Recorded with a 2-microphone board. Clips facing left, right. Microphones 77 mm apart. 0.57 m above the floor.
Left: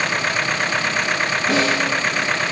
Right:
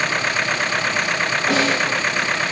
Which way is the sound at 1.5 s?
50° right (ahead or behind).